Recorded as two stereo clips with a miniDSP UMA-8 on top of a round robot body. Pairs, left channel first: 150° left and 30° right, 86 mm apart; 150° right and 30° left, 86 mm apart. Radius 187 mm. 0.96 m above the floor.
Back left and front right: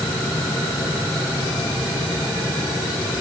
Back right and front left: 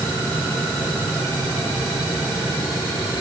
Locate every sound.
Only background noise.